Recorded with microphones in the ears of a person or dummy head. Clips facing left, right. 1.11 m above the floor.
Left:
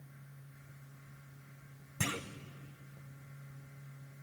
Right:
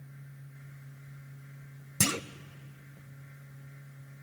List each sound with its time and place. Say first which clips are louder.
2.0 s a clunk: right 7 dB; 50° right (ahead or behind), 0.6 m